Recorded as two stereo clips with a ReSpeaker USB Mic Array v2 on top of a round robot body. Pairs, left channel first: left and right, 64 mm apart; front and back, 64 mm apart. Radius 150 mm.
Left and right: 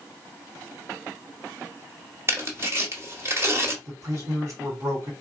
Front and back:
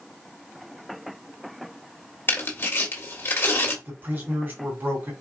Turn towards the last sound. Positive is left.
turn(degrees=-130)